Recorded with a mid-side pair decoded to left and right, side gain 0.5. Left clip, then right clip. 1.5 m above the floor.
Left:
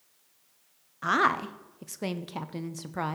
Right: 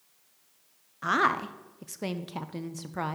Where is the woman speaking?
10° left, 0.8 m.